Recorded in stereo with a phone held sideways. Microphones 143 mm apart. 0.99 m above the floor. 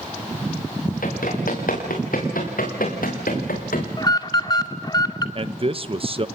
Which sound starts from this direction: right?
A man speaking, at 5.3 s.